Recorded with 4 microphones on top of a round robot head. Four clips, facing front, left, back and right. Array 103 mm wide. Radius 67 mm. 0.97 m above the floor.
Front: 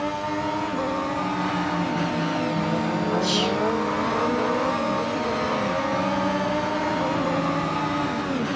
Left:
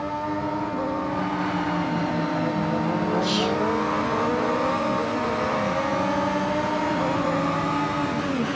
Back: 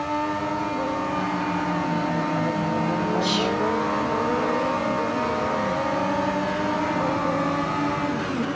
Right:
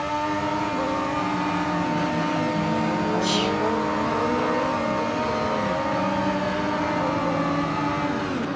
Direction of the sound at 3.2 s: 130° right.